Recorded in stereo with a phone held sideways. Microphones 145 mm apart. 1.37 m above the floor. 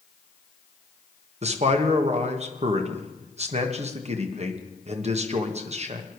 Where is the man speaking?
50° right (ahead or behind), 1.5 m.